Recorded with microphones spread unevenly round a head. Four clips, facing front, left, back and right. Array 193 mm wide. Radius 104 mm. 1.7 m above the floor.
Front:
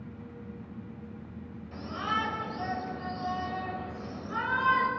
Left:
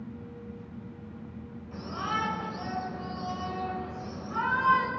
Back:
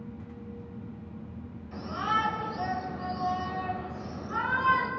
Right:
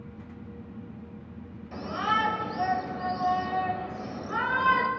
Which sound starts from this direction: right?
A shout, at 1.7 s.